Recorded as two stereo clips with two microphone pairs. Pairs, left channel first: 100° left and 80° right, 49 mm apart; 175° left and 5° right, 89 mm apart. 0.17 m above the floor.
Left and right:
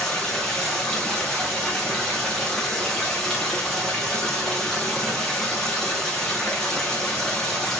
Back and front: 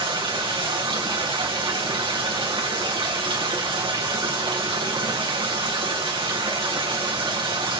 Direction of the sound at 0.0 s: 25° left.